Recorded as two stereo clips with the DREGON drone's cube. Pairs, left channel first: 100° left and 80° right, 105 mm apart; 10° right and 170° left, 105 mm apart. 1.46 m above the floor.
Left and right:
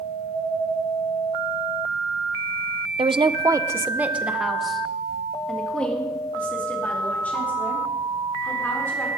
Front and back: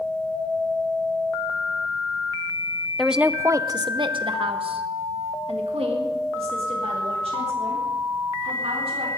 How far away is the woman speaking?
About 0.6 m.